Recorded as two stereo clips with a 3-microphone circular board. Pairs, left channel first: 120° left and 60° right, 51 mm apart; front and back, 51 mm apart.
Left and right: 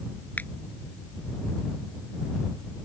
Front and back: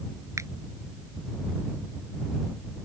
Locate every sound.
0.4 s a finger snap: 175° left